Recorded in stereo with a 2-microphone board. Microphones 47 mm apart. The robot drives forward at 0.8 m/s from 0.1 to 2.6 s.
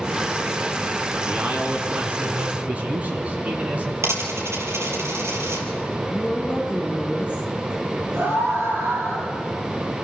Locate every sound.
1.2 s a man speaking: 40° right (ahead or behind), 3 m; by 3.9 s 30° right (ahead or behind), 3.5 m
4.0 s a dropped coin: 70° right (ahead or behind), 4 m
6.1 s a woman speaking: 35° left (ahead or behind), 6 m
8.1 s a scream: 65° right (ahead or behind), 6 m